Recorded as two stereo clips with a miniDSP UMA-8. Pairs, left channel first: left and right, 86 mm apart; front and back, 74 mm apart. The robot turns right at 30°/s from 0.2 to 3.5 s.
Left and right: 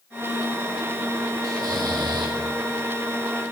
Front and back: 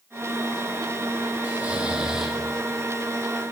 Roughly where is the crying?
No crying in this recording.